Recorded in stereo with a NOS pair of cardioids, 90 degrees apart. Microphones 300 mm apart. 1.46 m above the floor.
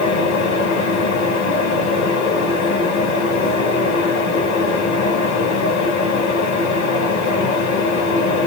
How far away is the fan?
About 1.8 m.